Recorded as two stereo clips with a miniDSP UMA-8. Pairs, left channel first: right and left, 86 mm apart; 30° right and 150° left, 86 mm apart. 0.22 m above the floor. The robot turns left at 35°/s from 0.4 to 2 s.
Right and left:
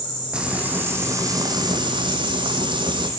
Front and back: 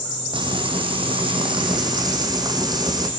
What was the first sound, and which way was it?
Frying, 170° left.